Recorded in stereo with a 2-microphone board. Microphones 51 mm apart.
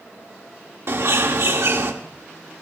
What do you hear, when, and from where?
0.9 s a bird: 65° right (ahead or behind), 1.8 m